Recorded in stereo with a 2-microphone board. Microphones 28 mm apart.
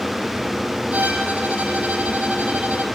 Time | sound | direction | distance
0.9 | a violin | 80° right | 7 m